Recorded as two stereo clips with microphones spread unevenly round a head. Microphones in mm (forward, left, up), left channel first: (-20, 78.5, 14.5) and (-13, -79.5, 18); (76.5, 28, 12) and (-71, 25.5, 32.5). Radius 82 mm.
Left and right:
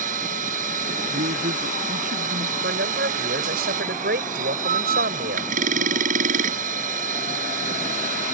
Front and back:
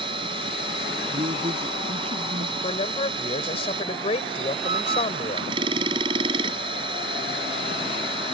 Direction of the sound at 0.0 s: 120° right.